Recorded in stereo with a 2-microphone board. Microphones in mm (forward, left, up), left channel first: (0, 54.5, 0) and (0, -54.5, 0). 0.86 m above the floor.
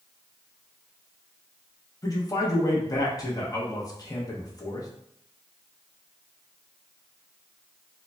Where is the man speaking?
35° left (ahead or behind), 0.7 m.